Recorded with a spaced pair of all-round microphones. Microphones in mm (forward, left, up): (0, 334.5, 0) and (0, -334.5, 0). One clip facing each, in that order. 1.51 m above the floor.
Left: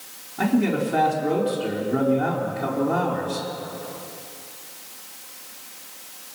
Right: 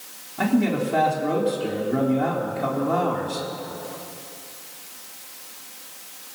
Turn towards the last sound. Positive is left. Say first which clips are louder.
# even
turn(degrees=-5)  # may be behind; listen again after turning